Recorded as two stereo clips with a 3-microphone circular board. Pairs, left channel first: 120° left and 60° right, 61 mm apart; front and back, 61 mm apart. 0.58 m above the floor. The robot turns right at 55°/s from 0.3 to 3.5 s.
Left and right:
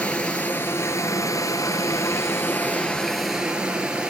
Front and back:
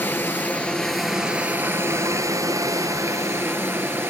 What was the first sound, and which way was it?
Running water, 50° left.